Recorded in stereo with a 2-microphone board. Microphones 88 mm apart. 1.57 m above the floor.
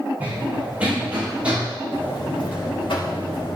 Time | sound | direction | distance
0.2 | running footsteps | 20° right (ahead or behind) | 6.5 m
1.9 | a buzzer | 75° left (ahead or behind) | 3.5 m